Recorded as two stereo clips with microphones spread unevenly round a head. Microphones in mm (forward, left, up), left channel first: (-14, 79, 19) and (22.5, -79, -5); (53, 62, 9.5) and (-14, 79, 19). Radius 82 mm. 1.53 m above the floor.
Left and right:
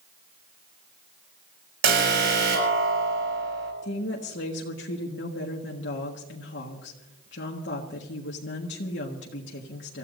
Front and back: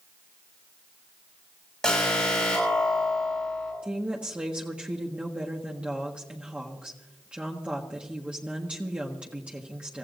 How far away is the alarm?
About 6 m.